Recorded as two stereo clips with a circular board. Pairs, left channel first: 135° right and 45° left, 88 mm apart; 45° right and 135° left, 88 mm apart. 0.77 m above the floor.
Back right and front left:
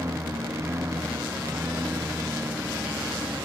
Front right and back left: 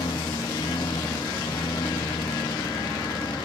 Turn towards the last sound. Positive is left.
turn(degrees=-15)